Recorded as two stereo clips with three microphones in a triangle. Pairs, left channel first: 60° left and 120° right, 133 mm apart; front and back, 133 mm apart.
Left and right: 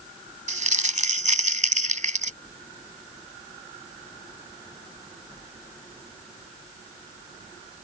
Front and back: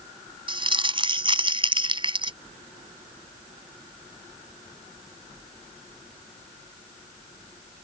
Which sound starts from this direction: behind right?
Crumpling, at 0.5 s.